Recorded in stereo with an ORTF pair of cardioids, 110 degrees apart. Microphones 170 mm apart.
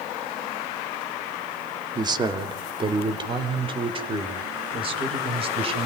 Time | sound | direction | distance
1.9 | a man speaking | 25° right | 2.5 m